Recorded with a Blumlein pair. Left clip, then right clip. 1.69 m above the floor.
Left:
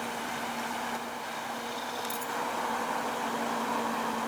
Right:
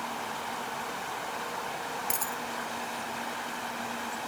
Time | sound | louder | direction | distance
2.1 | a dropped coin | even | 30° right | ?